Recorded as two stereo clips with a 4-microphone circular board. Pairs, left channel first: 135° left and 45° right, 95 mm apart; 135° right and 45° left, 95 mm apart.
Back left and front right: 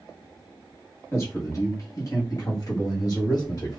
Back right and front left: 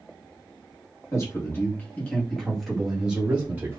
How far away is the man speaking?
About 1.5 m.